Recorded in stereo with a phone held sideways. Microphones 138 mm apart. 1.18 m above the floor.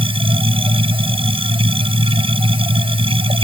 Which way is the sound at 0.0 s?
40° right (ahead or behind).